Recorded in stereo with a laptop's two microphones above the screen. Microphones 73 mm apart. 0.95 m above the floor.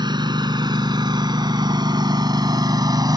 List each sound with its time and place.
0.0 s a lawn mower: 80° right; by 3.2 s 65° right (ahead or behind)